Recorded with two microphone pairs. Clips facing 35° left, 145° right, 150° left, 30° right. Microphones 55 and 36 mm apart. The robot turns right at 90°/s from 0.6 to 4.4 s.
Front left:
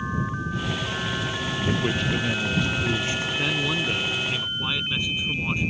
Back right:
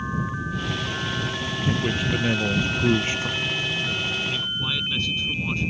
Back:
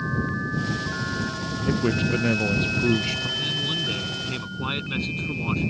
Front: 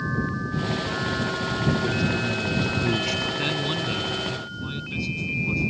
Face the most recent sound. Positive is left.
turn(degrees=110)